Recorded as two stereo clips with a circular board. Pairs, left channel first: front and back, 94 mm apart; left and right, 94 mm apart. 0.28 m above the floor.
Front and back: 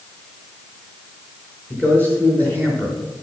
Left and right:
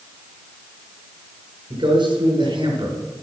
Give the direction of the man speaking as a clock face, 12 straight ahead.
2 o'clock.